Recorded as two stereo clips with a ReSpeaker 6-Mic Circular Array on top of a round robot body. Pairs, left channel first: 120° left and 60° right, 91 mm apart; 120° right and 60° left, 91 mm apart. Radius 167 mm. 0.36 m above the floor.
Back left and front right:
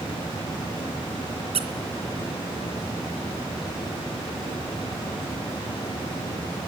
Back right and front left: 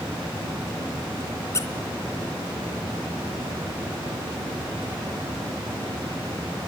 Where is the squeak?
60° right, 1.7 m.